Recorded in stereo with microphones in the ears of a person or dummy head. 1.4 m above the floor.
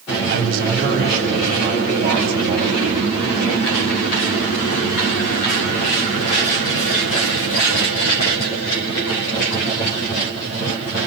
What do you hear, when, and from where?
0.3 s a man speaking: 55° right (ahead or behind), 7.5 m; by 3.5 s 20° right (ahead or behind), 7.5 m